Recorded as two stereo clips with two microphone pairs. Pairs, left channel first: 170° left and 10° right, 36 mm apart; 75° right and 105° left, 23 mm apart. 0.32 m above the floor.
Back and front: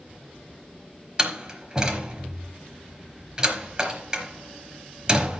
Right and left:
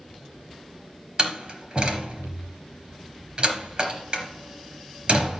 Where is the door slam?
60° left, 3.5 m.